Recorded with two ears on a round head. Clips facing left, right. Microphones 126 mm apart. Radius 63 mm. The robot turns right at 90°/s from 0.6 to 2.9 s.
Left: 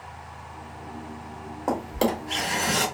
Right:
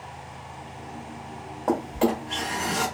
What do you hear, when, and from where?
1.7 s a drawer: 10° left, 1.6 m; by 2.9 s 115° left, 1.6 m